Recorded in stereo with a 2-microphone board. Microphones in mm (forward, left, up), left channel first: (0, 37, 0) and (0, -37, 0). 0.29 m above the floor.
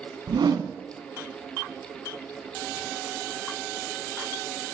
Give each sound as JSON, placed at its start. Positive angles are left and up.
{"t": 0.3, "sound": "a whoosh", "side_deg": -75, "distance_m": 0.6}